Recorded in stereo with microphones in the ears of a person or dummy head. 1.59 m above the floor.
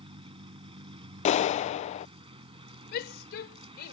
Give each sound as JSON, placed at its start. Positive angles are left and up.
{"t": 0.0, "sound": "a vehicle", "side_deg": -25}
{"t": 1.2, "sound": "a clap", "side_deg": 40}
{"t": 2.9, "sound": "a shout", "side_deg": 55}